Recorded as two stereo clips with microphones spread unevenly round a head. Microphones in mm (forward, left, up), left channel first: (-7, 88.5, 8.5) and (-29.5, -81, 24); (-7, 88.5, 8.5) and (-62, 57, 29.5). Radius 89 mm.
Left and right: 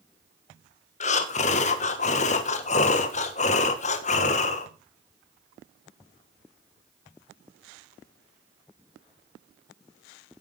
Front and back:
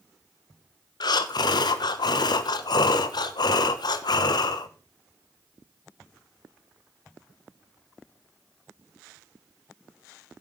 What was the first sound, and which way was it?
Breathing, 30° left.